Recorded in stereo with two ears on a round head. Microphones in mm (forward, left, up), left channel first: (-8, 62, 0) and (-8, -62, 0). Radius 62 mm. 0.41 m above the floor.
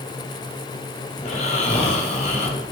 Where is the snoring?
50° left (ahead or behind), 2.5 m.